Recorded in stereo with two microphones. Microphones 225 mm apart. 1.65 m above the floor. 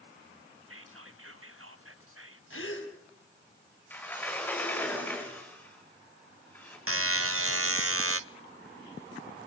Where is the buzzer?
75° right (ahead or behind), 0.8 m.